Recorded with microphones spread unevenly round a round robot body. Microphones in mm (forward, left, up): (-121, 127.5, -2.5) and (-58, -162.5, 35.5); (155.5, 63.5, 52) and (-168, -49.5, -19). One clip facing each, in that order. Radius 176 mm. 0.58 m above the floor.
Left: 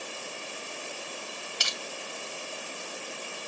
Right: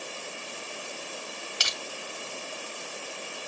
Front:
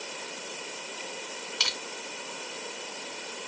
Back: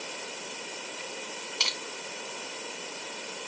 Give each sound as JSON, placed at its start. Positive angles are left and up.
{"t": 1.6, "sound": "crushing", "azimuth_deg": -50, "distance_m": 1.0}